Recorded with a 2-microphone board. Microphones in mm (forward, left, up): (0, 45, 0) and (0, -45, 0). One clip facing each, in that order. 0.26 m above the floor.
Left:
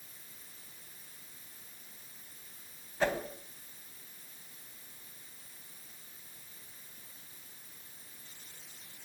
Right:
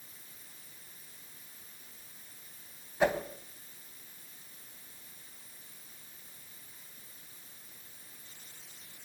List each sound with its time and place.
3.0 s a whoosh: 15° right (ahead or behind), 2 m